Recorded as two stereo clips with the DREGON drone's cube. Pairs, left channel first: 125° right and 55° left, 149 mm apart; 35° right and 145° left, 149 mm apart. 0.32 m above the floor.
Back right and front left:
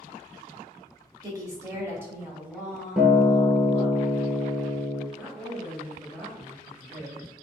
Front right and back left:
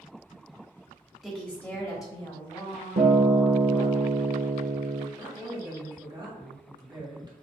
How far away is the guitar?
About 0.8 m.